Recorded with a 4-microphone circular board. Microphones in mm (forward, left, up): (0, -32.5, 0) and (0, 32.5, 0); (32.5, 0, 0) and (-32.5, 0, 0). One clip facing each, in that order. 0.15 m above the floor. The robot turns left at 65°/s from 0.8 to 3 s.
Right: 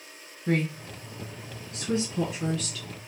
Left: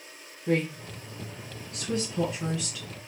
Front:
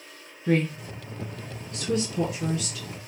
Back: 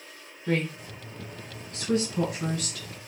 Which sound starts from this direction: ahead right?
A woman speaking, at 0.5 s.